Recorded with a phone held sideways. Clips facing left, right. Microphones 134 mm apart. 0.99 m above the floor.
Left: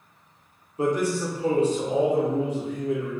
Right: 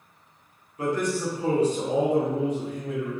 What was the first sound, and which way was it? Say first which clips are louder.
A man speaking: left 2 dB; 25° left (ahead or behind).